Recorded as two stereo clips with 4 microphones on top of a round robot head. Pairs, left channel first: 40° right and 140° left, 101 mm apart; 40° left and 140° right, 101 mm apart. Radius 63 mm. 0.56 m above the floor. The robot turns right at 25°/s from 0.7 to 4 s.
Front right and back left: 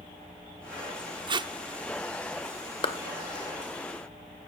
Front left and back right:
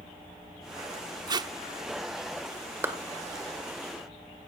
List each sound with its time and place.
1.3 s tape being pulled: 175° left, 0.8 m; by 1.5 s straight behind, 0.8 m
2.8 s a clap: 75° right, 2 m; by 3.0 s 70° right, 2 m